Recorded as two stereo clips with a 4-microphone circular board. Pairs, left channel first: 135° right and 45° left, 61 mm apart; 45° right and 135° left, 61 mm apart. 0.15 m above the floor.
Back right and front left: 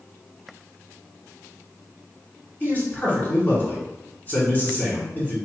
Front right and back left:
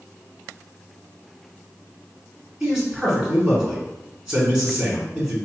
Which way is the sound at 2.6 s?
150° right.